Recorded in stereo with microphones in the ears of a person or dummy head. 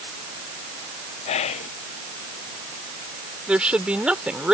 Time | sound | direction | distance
1.3 | whispering | 40° left (ahead or behind) | ?
3.5 | a woman speaking | centre (ahead or behind) | ?